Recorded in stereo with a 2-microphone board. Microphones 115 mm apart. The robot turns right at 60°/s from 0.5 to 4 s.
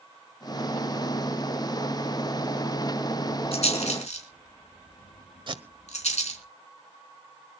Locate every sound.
3.5 s a rattle: 60° left (ahead or behind), 4 m; by 6.4 s 80° left, 4 m
5.5 s tape being pulled: 45° right (ahead or behind), 1.2 m